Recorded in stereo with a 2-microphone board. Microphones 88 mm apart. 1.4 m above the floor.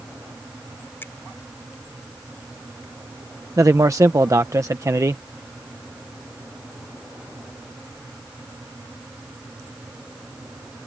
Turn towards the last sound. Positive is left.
turn(degrees=-35)  # may be behind; listen again after turning